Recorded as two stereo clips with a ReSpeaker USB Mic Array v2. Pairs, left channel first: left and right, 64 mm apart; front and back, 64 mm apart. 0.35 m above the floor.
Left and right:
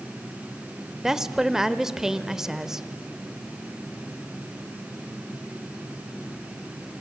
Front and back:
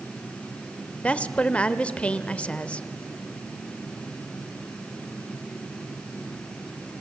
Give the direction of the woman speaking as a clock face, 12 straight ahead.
1 o'clock.